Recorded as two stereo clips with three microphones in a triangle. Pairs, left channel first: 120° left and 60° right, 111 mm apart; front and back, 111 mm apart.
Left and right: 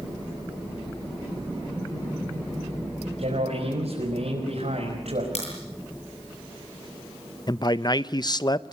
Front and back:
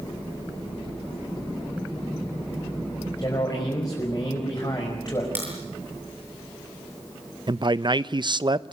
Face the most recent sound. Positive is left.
turn(degrees=155)